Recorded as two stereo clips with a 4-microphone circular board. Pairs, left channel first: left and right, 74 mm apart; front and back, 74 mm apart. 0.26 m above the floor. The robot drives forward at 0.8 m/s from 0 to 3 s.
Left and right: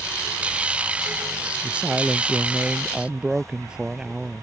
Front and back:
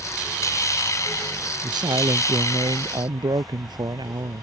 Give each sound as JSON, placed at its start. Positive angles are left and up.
{"t": 1.6, "sound": "a woman speaking", "azimuth_deg": -165}